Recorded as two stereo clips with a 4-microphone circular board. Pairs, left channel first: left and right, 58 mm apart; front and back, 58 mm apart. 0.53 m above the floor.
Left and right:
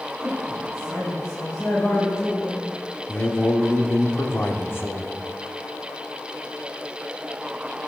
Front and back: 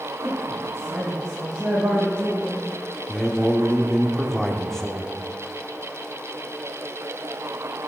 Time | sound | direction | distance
0.2 | a woman speaking | 130° left | 3.5 m
3.1 | a man speaking | 80° left | 0.9 m